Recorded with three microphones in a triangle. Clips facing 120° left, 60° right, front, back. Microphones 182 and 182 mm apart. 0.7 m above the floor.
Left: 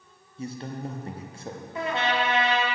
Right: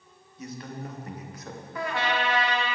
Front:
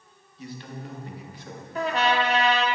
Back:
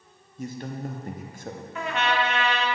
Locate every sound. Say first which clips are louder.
0.4 s a man speaking: left 4 dB, back 5 dB; 170° left, 0.6 m
1.8 s a trumpet: left 2 dB, front 3 dB; 55° left, 0.8 m